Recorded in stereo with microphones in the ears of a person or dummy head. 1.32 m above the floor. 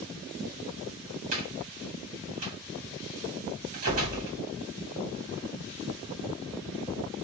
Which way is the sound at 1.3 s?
40° right (ahead or behind).